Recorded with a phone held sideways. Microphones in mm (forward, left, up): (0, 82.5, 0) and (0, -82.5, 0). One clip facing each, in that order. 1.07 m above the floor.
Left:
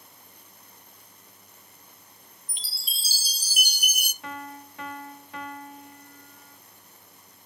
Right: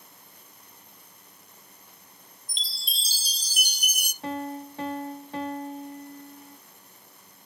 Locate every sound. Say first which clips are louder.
2.5 s a chime: right 4 dB; 10° left (ahead or behind), 0.6 m
4.2 s a piano: right 8 dB; 35° right (ahead or behind), 0.6 m